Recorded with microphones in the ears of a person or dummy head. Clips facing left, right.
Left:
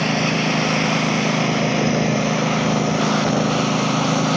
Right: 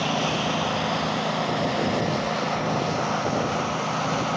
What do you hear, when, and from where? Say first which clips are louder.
0.0 s a lawn mower: left 5 dB; 30° left (ahead or behind); by 4.4 s 55° left (ahead or behind)